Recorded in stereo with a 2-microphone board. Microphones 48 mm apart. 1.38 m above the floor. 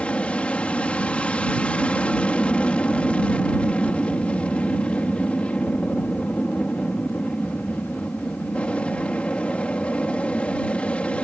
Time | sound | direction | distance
0.0 | an aircraft | 25° left (ahead or behind) | ?